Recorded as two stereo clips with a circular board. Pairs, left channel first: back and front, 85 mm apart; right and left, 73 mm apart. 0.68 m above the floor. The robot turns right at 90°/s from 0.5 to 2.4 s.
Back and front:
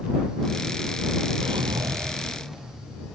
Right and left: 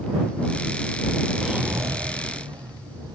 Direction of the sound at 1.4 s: 5° left.